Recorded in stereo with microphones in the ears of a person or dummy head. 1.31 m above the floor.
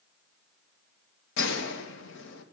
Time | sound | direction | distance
1.4 | a gunshot | 65° left (ahead or behind) | 1.4 m